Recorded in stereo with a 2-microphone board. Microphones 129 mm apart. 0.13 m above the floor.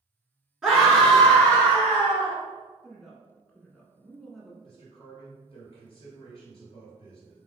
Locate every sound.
0.6 s a scream: 5° right (ahead or behind), 1.4 m; by 2.4 s 20° left (ahead or behind), 2 m
2.8 s a woman speaking: centre (ahead or behind), 1.1 m
4.6 s a man speaking: 40° left (ahead or behind), 1.6 m